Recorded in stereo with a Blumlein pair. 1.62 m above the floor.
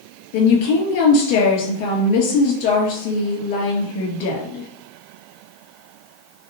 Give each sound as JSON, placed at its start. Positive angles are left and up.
{"t": 0.3, "sound": "a woman speaking", "azimuth_deg": 50, "distance_m": 2.0}